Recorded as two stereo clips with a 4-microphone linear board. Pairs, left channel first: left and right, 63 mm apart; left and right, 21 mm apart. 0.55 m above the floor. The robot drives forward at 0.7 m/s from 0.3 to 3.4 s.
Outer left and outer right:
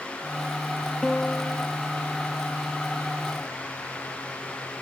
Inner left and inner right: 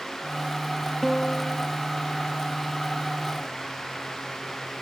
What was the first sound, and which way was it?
A piano, 15° left (ahead or behind).